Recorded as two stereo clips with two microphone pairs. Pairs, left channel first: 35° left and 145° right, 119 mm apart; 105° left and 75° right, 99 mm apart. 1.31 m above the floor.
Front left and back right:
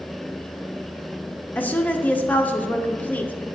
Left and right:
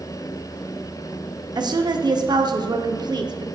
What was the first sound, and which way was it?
A woman speaking, 40° right.